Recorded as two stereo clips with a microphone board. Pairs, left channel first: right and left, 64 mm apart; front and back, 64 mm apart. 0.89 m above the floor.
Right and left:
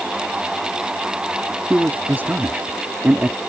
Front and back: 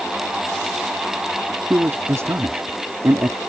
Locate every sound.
1.7 s a man speaking: 145° left